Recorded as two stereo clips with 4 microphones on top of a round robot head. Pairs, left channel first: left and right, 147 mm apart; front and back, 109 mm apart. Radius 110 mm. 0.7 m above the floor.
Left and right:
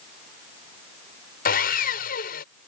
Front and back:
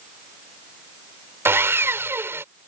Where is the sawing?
115° left.